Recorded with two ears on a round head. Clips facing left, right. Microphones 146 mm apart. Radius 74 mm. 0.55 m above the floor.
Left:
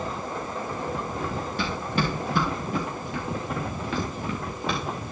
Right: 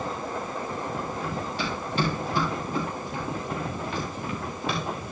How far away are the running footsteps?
About 4.5 m.